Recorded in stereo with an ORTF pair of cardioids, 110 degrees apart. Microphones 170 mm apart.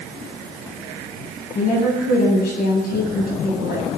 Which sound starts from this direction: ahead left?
A woman speaking, at 1.6 s.